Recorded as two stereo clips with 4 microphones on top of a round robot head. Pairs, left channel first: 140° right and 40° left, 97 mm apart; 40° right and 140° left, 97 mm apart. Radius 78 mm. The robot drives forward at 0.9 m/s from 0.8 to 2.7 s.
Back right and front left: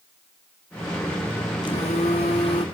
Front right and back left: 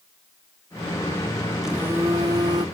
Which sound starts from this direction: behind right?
A phone buzzing, at 1.6 s.